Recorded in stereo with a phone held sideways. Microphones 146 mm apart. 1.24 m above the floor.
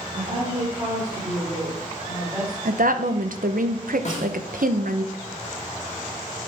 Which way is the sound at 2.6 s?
75° right (ahead or behind).